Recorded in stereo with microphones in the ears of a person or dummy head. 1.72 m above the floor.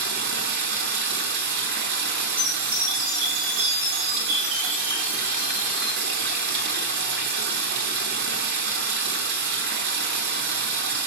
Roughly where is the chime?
Right.